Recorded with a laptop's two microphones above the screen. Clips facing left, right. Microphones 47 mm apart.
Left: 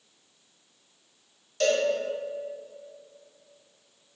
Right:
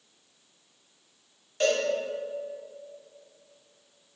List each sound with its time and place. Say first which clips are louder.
1.6 s a cowbell: left 1 dB; 25° right (ahead or behind), 1.5 m